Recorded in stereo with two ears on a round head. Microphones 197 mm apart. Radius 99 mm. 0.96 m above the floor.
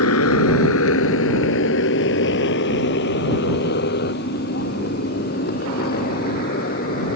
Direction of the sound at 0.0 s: 75° left (ahead or behind).